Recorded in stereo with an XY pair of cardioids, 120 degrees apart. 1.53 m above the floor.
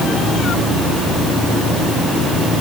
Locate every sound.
Only background noise.